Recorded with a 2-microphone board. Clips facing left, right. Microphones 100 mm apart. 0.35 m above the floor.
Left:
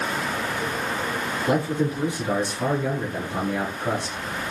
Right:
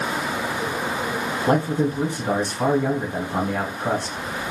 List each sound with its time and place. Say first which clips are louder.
1.5 s a man speaking: right 3 dB; 55° right (ahead or behind), 3 m